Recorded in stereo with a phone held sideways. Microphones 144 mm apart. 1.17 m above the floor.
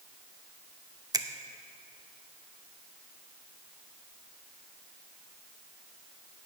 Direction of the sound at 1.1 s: 25° right (ahead or behind).